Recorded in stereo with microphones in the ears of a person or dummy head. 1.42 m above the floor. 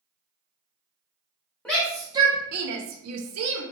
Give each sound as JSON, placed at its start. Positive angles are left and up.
{"t": 1.6, "sound": "a shout", "side_deg": 15, "distance_m": 0.6}